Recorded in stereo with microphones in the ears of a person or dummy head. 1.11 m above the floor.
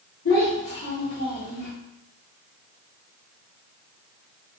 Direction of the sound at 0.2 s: 70° left (ahead or behind).